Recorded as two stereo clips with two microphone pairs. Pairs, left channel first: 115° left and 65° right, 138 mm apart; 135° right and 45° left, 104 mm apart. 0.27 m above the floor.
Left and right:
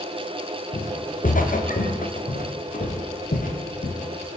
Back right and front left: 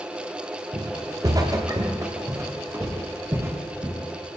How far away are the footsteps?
About 6 m.